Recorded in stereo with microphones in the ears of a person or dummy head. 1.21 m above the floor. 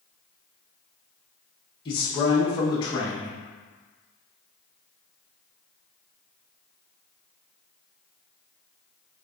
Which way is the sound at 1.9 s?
25° left (ahead or behind).